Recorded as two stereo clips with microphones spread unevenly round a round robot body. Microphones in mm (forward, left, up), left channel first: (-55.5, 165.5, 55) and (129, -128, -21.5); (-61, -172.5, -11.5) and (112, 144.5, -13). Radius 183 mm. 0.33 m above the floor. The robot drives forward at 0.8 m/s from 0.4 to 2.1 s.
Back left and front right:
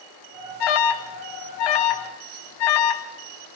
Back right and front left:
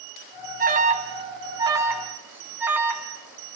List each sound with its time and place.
0.6 s an alarm: 125° left, 2 m; by 3.5 s 145° left, 3 m